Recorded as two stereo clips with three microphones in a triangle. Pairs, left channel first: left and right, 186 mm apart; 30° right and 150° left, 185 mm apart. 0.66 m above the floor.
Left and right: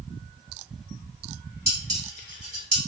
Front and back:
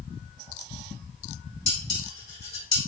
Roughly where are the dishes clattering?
Ahead right.